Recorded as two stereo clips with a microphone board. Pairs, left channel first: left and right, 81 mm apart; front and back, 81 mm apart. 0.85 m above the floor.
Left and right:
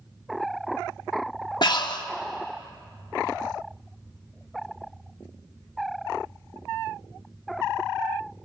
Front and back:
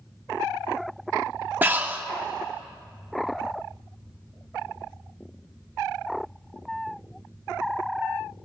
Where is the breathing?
115° left, 0.7 m.